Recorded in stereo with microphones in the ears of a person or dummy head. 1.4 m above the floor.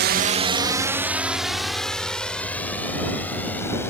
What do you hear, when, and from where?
0.0 s a drone: 50° right (ahead or behind); by 3.9 s 10° left (ahead or behind)